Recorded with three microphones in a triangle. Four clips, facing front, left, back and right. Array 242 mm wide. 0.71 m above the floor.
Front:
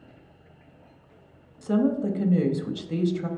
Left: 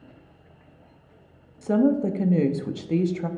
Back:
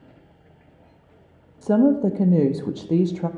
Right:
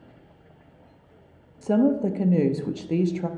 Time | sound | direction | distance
1.6 | a woman speaking | straight behind | 0.5 m